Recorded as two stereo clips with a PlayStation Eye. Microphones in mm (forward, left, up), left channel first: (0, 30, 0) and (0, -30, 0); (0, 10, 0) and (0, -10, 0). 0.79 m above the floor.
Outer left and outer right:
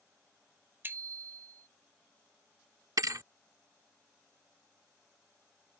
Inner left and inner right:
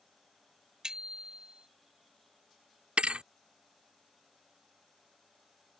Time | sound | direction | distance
0.8 | a bicycle bell | 40° right (ahead or behind) | ?
3.0 | a thud | 70° right (ahead or behind) | ?